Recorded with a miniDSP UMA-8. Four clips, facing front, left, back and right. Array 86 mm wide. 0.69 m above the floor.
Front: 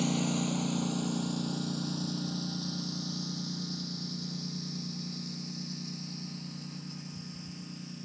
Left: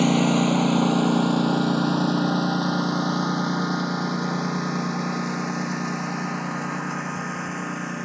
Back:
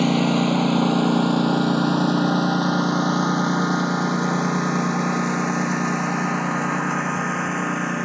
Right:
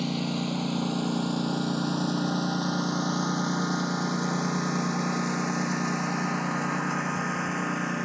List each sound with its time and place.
0.0 s a lawn mower: 135° left; by 8.1 s straight behind